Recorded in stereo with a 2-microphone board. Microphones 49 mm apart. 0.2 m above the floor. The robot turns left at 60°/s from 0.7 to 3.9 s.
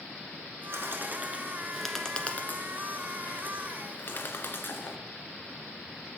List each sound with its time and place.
0.7 s a bird: 55° right (ahead or behind), 1.4 m; by 5.0 s 45° left (ahead or behind), 1.4 m